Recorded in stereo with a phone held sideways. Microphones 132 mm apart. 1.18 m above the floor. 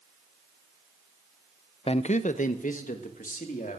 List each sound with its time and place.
1.9 s a man speaking: 45° left (ahead or behind), 0.6 m; by 3.8 s 80° left, 3 m